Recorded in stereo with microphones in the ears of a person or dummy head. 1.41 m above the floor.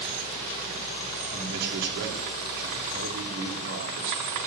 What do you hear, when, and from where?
1.3 s a man speaking: 65° right (ahead or behind), 3 m